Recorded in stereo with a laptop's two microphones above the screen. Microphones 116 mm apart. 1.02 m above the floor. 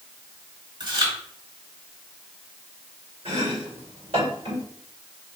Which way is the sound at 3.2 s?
60° right (ahead or behind).